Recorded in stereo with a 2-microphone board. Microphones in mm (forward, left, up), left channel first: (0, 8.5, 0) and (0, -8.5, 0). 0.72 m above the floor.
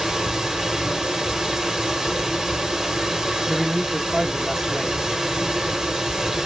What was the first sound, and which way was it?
Running water, 30° right (ahead or behind).